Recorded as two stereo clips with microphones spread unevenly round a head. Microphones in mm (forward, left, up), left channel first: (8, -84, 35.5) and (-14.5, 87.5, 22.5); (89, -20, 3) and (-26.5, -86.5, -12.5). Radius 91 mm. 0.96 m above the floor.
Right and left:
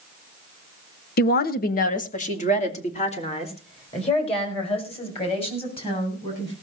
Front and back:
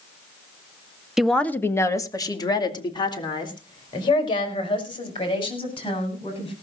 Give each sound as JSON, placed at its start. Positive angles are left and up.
{"t": 1.2, "sound": "a woman speaking", "azimuth_deg": -70, "distance_m": 1.1}